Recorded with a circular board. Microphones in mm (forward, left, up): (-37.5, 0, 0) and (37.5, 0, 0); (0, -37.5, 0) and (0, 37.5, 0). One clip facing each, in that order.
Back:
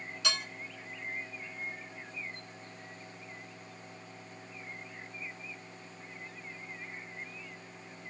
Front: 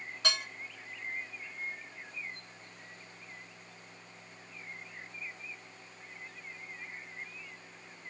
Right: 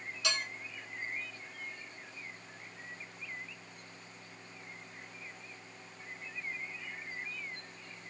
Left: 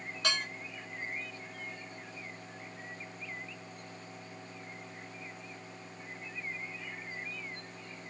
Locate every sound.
0.2 s dishes clattering: 45° left, 1.6 m